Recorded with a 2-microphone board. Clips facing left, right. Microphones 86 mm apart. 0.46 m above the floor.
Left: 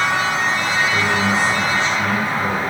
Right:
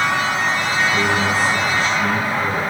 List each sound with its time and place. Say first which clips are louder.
0.9 s a man speaking: even; 25° left (ahead or behind), 5 m